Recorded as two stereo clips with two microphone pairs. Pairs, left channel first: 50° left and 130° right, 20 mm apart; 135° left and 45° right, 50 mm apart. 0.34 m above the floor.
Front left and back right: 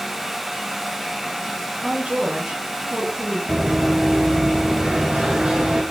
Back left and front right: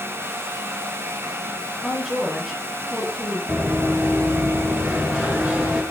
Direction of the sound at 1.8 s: 130° right.